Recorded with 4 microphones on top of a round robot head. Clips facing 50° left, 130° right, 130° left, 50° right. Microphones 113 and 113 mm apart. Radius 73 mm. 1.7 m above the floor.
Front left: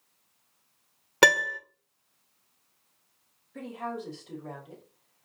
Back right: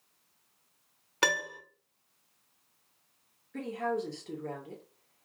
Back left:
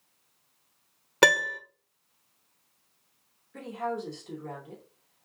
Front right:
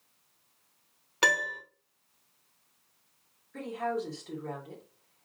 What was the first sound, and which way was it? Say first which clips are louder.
A piano: front left 9 dB, back left 6 dB; 85° left.